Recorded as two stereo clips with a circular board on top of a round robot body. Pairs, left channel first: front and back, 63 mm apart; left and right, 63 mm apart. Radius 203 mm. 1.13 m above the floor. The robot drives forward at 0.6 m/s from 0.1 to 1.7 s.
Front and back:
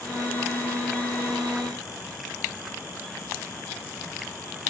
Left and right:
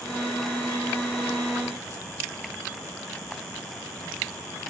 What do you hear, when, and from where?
Only background noise.